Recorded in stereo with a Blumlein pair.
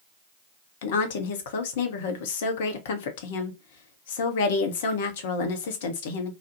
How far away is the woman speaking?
About 0.6 m.